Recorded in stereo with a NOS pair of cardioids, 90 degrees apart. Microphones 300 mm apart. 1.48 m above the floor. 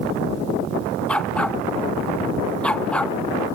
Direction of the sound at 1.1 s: 5° left.